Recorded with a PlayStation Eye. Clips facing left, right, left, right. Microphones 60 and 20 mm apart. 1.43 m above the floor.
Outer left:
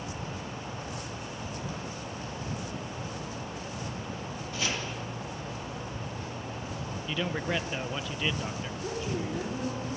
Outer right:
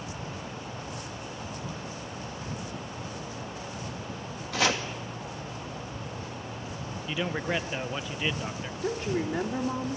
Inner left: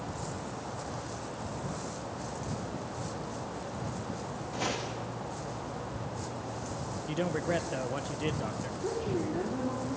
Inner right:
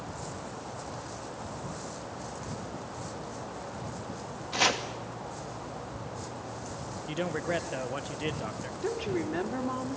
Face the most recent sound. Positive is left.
turn(degrees=-65)  # may be behind; listen again after turning